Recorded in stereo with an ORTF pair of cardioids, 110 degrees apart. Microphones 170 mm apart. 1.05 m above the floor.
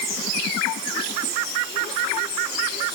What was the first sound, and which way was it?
Only background noise.